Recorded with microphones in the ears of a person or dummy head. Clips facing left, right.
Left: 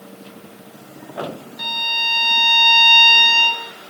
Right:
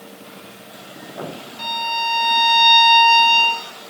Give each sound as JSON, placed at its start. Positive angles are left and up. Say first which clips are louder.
{"t": 1.6, "sound": "a violin", "louder": "right 5 dB", "side_deg": 15, "distance_m": 3.0}